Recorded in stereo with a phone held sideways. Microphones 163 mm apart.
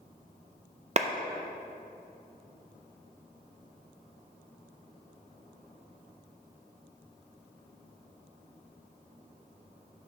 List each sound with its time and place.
1.0 s a clap: 45° right (ahead or behind), 0.5 m